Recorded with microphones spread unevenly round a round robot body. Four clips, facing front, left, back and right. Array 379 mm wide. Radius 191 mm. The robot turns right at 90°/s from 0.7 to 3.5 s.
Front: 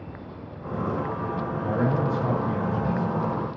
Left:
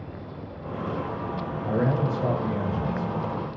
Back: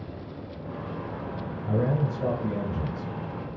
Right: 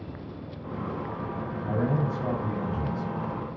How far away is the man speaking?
About 3 m.